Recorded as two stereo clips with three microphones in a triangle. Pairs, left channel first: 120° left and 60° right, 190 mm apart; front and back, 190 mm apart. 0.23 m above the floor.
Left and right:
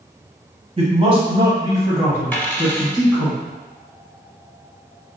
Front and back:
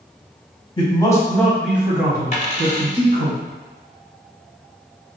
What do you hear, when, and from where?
0.8 s a man speaking: 40° right, 1.1 m; by 3.3 s 155° right, 1.5 m
2.3 s a dropped coin: 45° left, 0.7 m